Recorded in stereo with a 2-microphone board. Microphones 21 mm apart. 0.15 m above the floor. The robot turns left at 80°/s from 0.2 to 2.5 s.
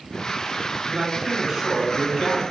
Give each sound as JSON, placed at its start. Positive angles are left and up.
{"t": 0.9, "sound": "a man speaking", "side_deg": -15, "distance_m": 1.0}